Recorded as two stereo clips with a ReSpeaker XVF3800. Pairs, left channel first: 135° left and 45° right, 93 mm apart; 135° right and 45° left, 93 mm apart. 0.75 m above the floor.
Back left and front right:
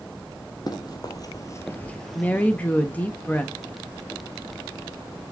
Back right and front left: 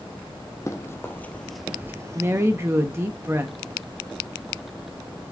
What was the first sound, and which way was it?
Running footsteps, 170° left.